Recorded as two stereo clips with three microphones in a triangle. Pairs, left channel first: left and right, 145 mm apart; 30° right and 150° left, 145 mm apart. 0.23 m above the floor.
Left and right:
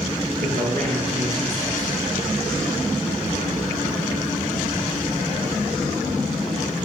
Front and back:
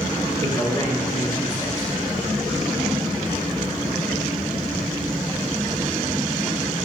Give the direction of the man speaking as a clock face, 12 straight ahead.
3 o'clock.